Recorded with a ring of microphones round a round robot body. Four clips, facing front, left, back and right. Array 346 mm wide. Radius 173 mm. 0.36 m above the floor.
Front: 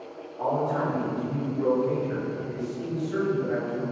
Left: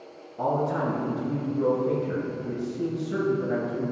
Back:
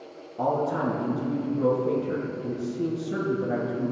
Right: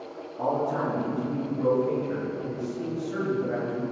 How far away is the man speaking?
About 4 m.